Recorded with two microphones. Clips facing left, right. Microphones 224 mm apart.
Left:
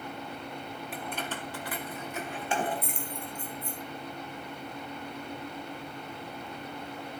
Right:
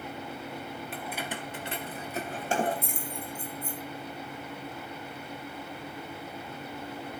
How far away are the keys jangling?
About 1.4 m.